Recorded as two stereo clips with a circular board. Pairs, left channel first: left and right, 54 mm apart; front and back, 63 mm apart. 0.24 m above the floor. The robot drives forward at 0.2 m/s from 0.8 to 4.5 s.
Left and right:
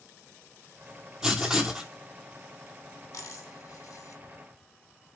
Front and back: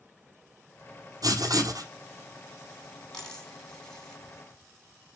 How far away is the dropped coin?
About 4.5 m.